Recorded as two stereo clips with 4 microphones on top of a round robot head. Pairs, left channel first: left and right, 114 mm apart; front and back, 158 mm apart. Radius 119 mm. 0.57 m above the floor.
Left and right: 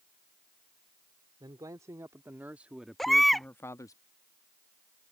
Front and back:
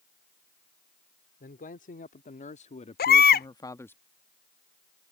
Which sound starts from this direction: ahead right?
A man speaking, at 1.4 s.